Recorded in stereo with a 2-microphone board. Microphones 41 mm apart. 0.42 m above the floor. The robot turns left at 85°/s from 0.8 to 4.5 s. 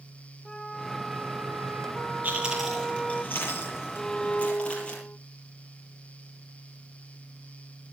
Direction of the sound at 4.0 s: 170° left.